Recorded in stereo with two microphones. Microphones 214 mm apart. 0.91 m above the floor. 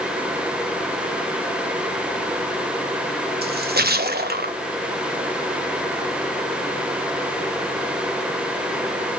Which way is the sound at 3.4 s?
50° right (ahead or behind).